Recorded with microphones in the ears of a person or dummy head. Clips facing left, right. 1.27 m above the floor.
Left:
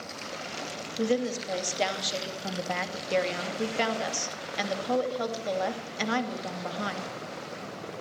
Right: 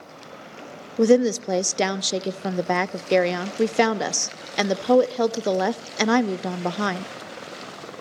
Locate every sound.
1.0 s a woman speaking: 65° right (ahead or behind), 0.5 m